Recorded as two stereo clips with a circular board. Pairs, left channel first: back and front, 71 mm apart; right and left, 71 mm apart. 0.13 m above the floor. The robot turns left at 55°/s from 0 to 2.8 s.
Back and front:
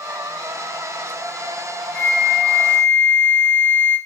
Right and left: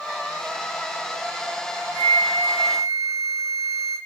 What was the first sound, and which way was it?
A flute, 85° right.